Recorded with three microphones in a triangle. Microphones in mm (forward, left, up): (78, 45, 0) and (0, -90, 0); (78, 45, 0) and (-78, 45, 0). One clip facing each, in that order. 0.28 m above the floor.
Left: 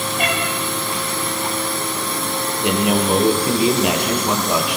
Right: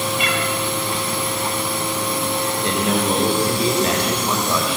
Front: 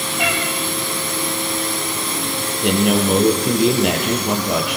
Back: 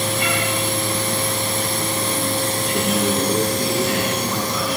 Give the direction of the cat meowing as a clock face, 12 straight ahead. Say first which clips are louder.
Left 1 dB, even; 11 o'clock.